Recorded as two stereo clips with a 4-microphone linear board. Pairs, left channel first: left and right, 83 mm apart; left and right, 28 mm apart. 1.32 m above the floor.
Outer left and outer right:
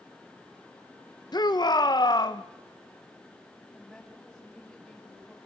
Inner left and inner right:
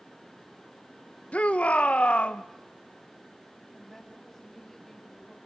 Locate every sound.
1.3 s a shout: 55° left (ahead or behind), 1.6 m
3.7 s a woman speaking: centre (ahead or behind), 8 m